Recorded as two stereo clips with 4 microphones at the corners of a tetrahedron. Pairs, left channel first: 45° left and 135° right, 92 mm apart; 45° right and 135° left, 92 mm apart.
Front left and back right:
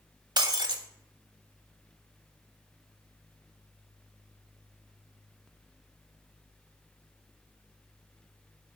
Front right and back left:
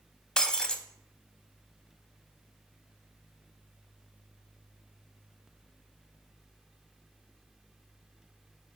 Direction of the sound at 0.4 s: 125° right.